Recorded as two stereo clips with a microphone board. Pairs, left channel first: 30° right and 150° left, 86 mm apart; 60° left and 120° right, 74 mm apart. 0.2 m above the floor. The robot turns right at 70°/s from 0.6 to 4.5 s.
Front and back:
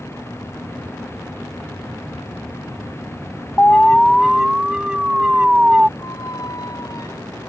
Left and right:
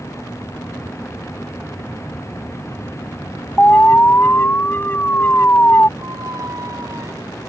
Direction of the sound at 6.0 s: 75° right.